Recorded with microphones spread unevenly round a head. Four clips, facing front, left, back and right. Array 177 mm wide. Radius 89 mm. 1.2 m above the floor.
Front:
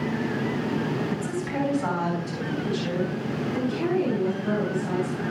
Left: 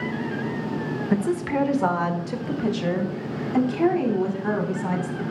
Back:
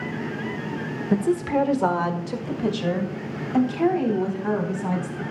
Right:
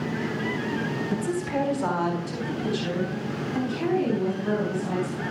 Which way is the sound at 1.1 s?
155° left.